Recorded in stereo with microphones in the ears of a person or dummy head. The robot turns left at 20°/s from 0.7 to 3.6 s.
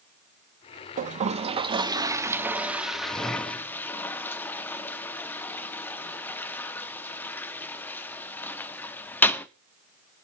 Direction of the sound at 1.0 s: 40° right (ahead or behind).